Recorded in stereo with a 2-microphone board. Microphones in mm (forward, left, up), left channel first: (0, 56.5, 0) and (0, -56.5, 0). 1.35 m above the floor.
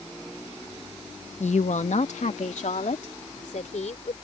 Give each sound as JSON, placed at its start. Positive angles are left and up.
{"t": 1.4, "sound": "a woman speaking", "side_deg": 70}